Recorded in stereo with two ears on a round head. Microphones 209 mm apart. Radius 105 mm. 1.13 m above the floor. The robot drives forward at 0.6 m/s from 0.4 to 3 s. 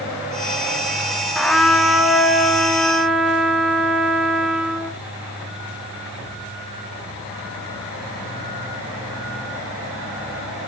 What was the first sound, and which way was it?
A trumpet, centre (ahead or behind).